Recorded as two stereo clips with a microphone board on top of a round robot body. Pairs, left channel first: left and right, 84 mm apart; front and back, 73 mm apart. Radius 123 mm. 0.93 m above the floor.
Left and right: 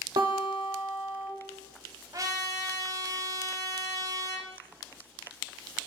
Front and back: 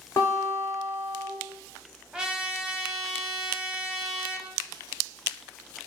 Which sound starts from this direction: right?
A trumpet, at 2.1 s.